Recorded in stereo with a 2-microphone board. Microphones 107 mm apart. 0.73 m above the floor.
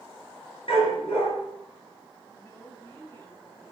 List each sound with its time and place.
0.7 s a dog barking: 65° left (ahead or behind), 5 m
2.3 s a woman speaking: 30° left (ahead or behind), 5.5 m